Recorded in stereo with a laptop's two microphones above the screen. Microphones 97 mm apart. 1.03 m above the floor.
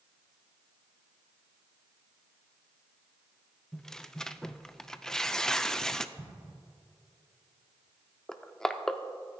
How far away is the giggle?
No giggle in this recording.